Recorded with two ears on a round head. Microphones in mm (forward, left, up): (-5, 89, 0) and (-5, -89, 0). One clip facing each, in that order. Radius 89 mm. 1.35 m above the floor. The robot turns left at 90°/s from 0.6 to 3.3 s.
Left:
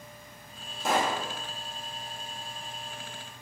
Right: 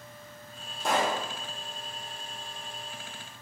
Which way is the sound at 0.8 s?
175° right.